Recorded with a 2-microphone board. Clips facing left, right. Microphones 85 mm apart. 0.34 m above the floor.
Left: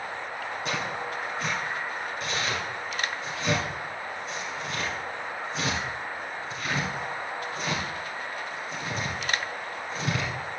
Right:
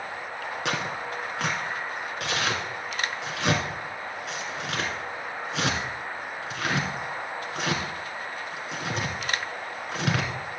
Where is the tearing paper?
80° right, 2 m.